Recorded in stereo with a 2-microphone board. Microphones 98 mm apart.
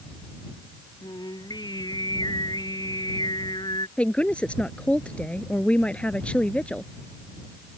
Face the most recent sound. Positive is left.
turn(degrees=10)  # may be behind; listen again after turning